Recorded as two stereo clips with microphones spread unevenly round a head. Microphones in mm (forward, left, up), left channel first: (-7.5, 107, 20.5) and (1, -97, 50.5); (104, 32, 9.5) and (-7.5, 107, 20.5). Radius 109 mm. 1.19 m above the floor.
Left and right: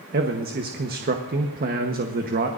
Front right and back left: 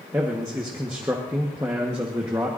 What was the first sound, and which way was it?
A man speaking, 135° right.